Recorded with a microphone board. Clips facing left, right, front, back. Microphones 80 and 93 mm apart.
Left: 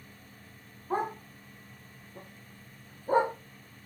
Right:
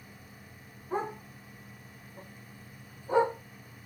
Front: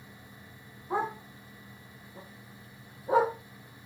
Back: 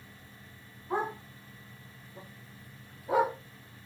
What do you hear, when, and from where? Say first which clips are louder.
0.9 s a dog barking: left 2 dB, front 1 dB; 80° left, 3 m; by 3.4 s 50° left, 1.7 m